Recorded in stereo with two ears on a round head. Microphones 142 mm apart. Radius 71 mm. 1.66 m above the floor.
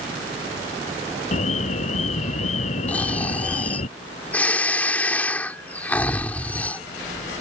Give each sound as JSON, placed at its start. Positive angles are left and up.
{"t": 1.3, "sound": "an alarm", "side_deg": 45}
{"t": 2.9, "sound": "snoring", "side_deg": 10}